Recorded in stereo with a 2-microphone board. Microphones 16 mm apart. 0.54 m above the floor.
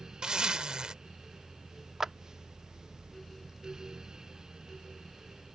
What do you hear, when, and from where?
0.2 s a zipper: 55° right (ahead or behind)
2.0 s a clap: 25° right (ahead or behind)